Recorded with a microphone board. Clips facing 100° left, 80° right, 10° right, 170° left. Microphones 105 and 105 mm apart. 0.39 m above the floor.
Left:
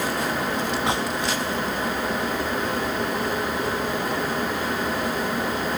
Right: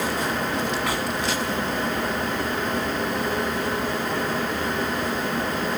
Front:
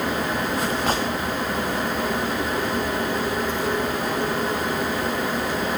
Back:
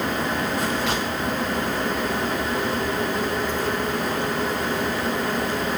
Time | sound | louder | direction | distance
0.9 | a gunshot | left 2 dB, front 2 dB | 35° left | 3 m